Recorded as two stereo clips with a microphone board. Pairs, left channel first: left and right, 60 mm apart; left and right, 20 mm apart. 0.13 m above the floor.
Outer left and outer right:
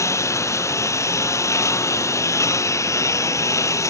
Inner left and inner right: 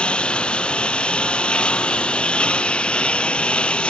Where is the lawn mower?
55° left (ahead or behind).